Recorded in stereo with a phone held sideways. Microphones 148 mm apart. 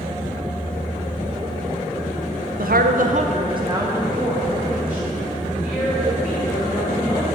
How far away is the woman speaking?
About 0.7 m.